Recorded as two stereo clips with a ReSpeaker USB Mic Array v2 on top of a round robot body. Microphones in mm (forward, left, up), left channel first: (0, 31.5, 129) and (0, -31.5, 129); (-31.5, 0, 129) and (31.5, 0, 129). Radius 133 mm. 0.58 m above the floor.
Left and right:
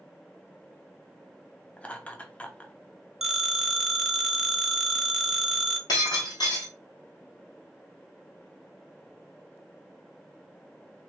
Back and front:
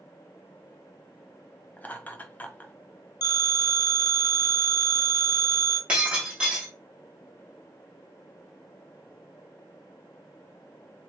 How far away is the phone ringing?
About 0.8 m.